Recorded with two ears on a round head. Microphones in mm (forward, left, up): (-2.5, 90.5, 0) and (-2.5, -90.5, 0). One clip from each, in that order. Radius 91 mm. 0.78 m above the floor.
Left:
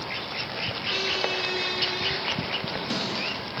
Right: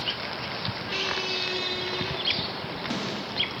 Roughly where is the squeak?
Centre.